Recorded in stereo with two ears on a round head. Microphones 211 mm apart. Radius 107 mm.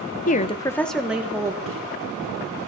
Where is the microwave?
65° right (ahead or behind), 1.4 m.